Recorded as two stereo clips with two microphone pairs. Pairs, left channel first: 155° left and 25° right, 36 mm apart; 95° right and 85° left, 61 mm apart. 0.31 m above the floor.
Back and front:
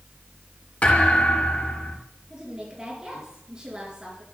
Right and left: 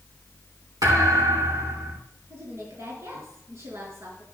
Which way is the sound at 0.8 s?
105° left.